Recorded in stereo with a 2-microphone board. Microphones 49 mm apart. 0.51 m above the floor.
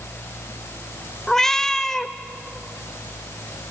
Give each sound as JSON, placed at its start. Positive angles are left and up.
{"t": 1.3, "sound": "a cat meowing", "side_deg": 10, "distance_m": 0.7}